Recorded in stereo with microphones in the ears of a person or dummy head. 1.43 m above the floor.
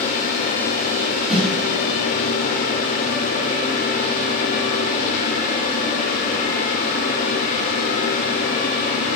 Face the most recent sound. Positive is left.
turn(degrees=5)  # may be behind; listen again after turning